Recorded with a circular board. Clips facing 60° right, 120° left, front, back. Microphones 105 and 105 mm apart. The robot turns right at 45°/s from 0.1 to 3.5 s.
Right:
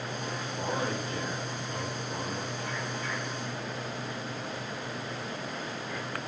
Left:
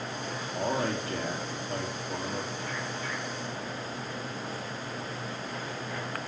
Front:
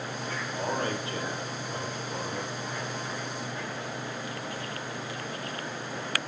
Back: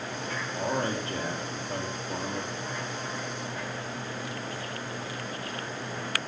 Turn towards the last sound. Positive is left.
turn(degrees=-125)